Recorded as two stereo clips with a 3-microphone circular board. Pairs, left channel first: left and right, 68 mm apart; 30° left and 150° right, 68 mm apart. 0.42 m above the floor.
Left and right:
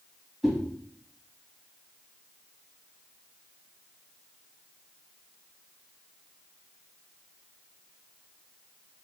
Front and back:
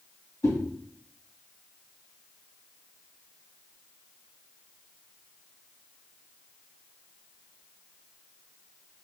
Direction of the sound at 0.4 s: 5° left.